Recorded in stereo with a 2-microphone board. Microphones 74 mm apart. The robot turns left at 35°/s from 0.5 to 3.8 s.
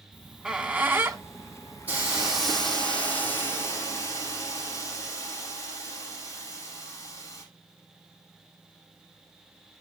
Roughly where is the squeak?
Centre.